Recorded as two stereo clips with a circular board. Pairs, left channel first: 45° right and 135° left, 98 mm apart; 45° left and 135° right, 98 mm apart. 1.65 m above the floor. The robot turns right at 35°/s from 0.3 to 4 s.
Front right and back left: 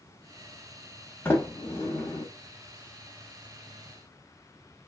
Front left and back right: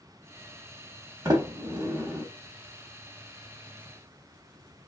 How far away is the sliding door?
About 1.1 m.